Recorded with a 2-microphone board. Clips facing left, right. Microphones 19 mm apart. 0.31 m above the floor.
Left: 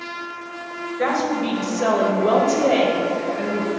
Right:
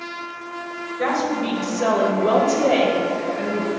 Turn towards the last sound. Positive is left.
turn(degrees=-35)  # may be behind; listen again after turning